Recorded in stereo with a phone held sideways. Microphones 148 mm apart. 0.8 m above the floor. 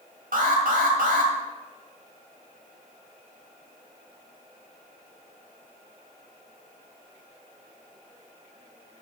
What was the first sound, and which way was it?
An alarm, 85° right.